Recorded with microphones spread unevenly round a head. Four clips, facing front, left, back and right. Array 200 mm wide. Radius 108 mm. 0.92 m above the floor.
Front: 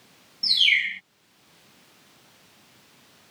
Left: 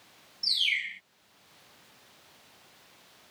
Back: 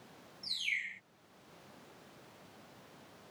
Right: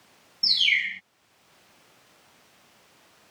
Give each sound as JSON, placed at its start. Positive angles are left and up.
{"t": 0.4, "sound": "a bird", "azimuth_deg": -35}